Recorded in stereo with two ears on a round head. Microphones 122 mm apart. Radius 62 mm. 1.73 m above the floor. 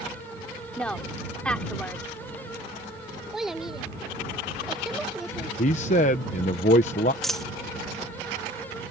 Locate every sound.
0.8 s a woman speaking: 10° left (ahead or behind)
3.3 s a child speaking: centre (ahead or behind)
5.6 s a man speaking: 60° left (ahead or behind)
7.2 s a dropped coin: 5° left (ahead or behind)